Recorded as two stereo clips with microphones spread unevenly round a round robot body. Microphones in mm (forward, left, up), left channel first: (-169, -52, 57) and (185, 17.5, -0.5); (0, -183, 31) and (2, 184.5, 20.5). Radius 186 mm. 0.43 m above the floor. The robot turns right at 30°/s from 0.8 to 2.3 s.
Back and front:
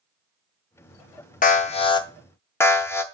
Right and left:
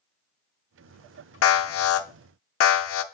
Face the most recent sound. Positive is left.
turn(degrees=-75)